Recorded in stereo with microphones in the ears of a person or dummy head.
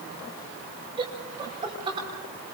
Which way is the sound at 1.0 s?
25° right (ahead or behind).